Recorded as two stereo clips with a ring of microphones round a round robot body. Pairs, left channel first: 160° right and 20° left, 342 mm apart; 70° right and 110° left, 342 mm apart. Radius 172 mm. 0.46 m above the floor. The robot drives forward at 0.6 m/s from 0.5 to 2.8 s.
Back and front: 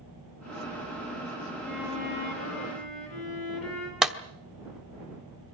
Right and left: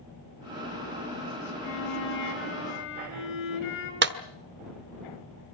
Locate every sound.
1.6 s a violin: 120° right, 4.5 m; by 3.9 s 125° right, 5 m
4.0 s a clap: 110° left, 1.2 m